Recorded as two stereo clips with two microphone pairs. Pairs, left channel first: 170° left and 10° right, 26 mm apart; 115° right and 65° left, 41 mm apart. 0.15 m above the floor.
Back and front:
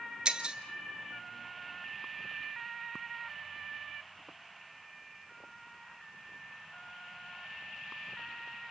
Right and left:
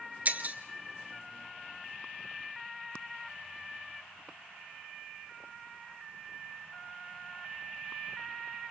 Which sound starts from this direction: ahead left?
Breaking glass, at 0.2 s.